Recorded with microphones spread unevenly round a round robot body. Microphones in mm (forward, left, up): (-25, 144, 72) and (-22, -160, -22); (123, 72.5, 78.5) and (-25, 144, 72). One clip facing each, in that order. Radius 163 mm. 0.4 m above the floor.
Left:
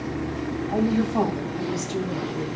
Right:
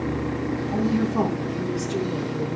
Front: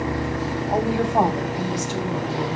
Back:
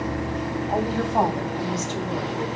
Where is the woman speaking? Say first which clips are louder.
Left 1 dB, front 3 dB; 55° left, 3 m; by 2.6 s 50° left, 5 m.